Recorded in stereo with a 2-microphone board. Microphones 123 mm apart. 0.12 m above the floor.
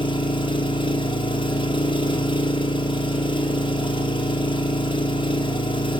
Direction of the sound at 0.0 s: 45° left (ahead or behind).